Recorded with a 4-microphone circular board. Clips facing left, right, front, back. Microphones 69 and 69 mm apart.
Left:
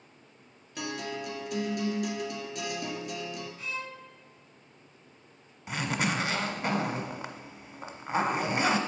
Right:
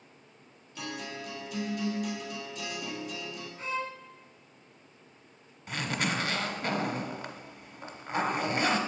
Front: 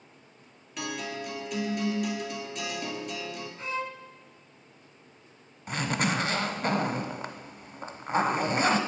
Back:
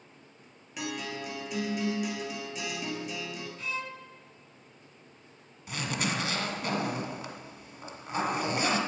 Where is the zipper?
25° left, 0.9 m.